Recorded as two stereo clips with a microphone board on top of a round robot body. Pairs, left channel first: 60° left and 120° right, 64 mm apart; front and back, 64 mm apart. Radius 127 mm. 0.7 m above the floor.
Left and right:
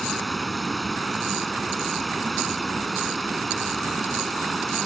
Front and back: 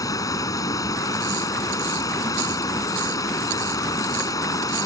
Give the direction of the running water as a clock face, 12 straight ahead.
1 o'clock.